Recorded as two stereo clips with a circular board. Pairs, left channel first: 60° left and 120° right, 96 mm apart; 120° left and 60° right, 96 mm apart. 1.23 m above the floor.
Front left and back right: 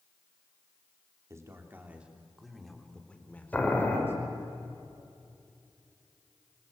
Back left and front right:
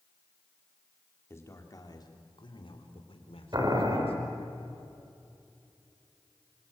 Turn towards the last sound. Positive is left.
turn(degrees=-15)